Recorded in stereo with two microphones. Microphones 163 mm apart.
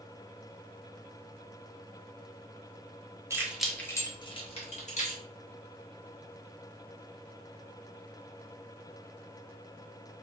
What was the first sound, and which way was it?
Keys jangling, 20° right (ahead or behind).